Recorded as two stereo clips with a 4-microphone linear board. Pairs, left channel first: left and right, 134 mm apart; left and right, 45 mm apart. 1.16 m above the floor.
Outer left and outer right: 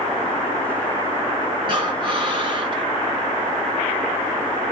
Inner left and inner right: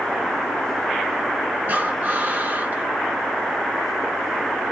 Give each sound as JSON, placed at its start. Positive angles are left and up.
{"t": 1.7, "sound": "breathing", "side_deg": -35, "distance_m": 1.1}